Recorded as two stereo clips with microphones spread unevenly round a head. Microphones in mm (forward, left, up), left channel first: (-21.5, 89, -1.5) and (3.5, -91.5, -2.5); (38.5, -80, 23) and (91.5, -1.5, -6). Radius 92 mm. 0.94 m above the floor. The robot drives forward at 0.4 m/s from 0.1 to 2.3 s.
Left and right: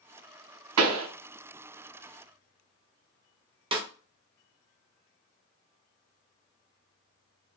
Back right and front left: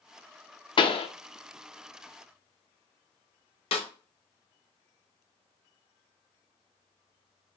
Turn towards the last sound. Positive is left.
turn(degrees=-130)